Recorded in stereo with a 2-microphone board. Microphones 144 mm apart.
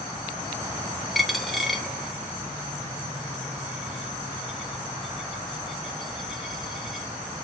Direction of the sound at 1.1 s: Centre (ahead or behind).